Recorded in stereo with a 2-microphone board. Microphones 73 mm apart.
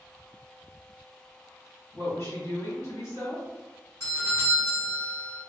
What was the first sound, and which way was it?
A woman speaking, 45° left (ahead or behind).